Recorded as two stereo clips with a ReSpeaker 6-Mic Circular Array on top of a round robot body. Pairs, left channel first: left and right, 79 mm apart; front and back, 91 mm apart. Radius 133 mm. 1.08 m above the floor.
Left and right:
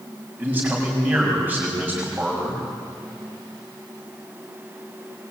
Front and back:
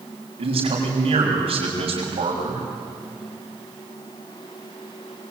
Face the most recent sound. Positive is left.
turn(degrees=-160)